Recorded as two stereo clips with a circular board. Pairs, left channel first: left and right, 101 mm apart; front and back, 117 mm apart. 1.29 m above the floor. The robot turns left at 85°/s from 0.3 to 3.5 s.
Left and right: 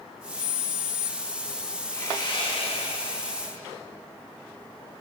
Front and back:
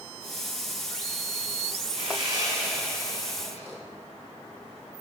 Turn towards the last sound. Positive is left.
turn(degrees=30)